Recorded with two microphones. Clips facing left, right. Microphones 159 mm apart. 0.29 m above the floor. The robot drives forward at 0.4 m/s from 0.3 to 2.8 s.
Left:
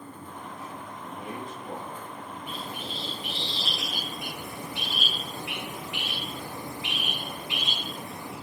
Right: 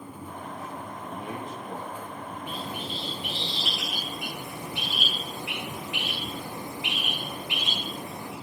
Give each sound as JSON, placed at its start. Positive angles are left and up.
{"t": 1.0, "sound": "a man speaking", "side_deg": -5, "distance_m": 8.0}
{"t": 2.5, "sound": "a bird", "side_deg": -20, "distance_m": 6.0}